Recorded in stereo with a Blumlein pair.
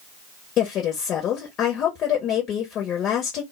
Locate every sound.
0.6 s a woman speaking: 30° left, 1.0 m